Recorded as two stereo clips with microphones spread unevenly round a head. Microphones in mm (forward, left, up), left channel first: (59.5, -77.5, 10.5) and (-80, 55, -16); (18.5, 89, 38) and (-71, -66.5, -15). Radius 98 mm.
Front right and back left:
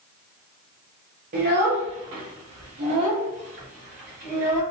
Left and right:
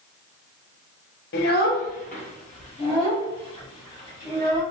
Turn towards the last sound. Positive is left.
turn(degrees=130)